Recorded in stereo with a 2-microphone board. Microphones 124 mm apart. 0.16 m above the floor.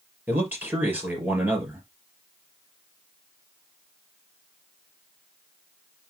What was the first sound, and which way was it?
A man speaking, 15° right (ahead or behind).